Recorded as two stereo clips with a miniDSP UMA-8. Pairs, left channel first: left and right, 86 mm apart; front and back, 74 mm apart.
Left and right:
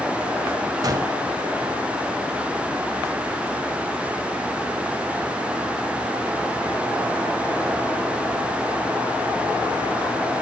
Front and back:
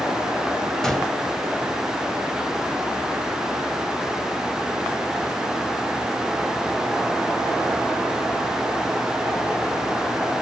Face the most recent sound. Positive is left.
turn(degrees=-80)